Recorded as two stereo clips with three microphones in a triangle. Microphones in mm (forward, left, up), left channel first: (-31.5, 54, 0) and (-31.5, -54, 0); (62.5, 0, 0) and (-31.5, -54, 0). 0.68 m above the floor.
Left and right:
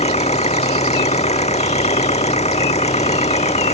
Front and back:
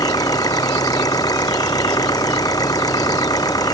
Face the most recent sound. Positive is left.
turn(degrees=85)